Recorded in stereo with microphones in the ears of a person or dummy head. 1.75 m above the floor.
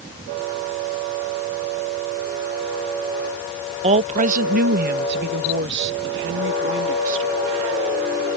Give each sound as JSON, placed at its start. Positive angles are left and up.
{"t": 3.8, "sound": "a woman speaking", "side_deg": -35}